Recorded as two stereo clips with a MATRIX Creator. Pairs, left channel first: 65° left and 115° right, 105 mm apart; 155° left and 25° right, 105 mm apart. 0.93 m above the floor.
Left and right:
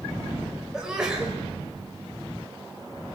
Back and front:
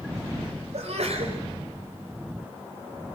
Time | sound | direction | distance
0.7 | a sneeze | 30° right | 5 m